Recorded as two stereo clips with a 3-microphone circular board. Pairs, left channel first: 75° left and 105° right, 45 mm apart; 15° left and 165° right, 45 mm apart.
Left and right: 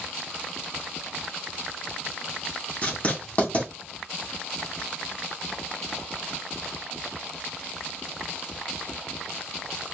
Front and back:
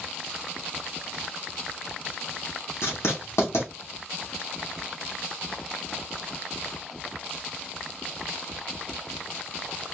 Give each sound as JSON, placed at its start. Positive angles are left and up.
{"t": 2.8, "sound": "writing", "azimuth_deg": 20, "distance_m": 2.5}